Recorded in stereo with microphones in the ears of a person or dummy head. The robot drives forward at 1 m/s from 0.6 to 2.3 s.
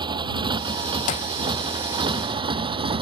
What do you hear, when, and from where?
0.0 s a motorcycle: 25° right (ahead or behind); by 3.0 s 30° right (ahead or behind)
1.1 s a clap: 25° left (ahead or behind)